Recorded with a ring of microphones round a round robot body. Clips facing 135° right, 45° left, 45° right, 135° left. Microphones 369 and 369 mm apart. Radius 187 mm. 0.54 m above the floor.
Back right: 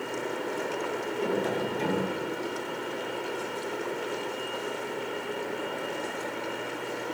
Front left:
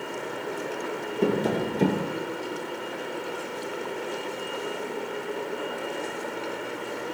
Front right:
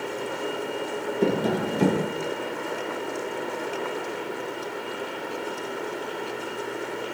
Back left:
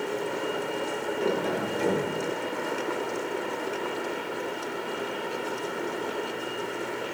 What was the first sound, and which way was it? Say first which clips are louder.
Tapping: front left 5 dB, front right 5 dB; straight ahead.